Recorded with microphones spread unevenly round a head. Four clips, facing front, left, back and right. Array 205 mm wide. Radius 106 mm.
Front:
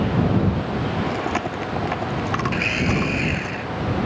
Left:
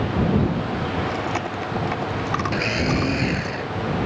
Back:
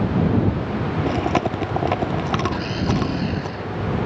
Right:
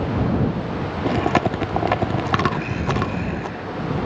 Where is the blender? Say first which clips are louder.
Left 1 dB, even; 80° left.